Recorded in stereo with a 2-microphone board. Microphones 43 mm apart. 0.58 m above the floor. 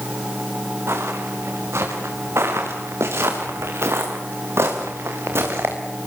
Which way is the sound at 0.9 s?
85° right.